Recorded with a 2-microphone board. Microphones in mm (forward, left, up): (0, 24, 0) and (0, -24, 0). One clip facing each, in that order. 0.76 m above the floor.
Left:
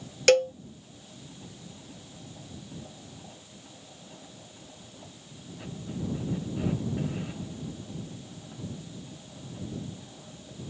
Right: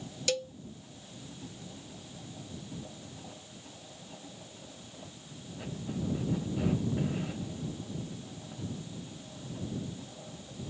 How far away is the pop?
I don't hear a pop.